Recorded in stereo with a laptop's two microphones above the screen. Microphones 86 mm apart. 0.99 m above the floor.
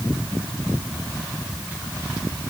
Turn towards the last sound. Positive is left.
No sound to turn to.